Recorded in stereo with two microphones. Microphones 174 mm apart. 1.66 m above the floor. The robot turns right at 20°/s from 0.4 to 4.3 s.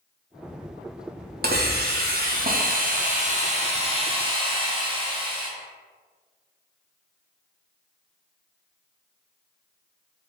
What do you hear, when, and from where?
1.4 s a hiss: 90° right, 0.5 m; by 5.5 s 35° right, 0.5 m